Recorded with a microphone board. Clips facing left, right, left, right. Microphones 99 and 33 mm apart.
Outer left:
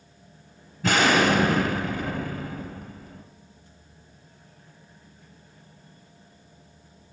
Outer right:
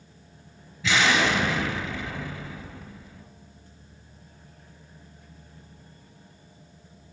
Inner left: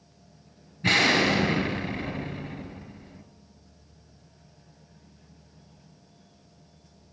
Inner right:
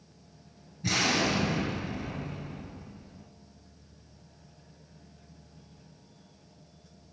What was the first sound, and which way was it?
An explosion, 45° left (ahead or behind).